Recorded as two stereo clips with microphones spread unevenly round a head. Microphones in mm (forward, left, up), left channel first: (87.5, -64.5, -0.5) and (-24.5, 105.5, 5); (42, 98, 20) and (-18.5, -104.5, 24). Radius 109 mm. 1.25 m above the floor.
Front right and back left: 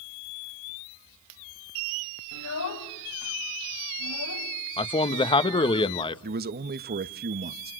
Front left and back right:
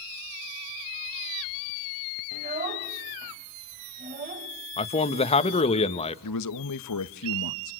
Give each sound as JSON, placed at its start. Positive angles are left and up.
{"t": 2.3, "sound": "a child speaking", "azimuth_deg": -50, "distance_m": 4.5}
{"t": 4.8, "sound": "a man speaking", "azimuth_deg": 10, "distance_m": 1.5}
{"t": 6.2, "sound": "a man speaking", "azimuth_deg": 80, "distance_m": 1.2}